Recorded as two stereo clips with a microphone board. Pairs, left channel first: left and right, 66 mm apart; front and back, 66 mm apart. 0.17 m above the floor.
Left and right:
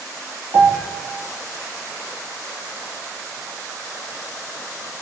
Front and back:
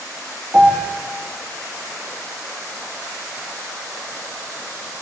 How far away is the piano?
About 9.5 m.